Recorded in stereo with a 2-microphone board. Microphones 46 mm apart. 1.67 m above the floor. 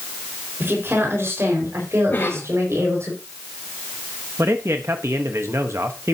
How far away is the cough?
About 3 m.